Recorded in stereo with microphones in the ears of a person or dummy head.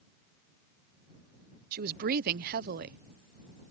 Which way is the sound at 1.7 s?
50° right (ahead or behind).